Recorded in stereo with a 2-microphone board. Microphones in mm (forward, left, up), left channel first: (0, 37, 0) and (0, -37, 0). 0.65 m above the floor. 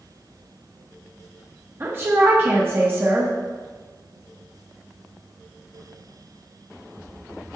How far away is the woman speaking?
About 0.9 m.